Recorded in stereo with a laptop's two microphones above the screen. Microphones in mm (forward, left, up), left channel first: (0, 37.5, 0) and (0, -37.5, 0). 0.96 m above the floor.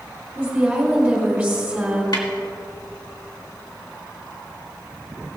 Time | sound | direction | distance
0.3 | a woman speaking | 5° right (ahead or behind) | 3.5 m
2.1 | a snare drum | 60° left (ahead or behind) | 2.5 m